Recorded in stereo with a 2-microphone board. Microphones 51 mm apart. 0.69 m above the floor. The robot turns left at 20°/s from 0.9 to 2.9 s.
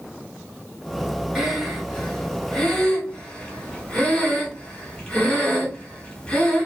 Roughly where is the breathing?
Centre.